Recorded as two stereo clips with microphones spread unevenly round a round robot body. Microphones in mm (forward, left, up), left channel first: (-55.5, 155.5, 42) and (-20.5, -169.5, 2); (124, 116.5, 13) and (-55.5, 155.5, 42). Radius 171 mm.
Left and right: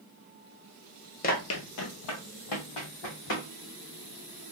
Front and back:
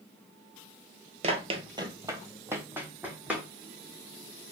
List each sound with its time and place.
1.2 s running footsteps: 145° left, 0.6 m; by 3.5 s 85° left, 2 m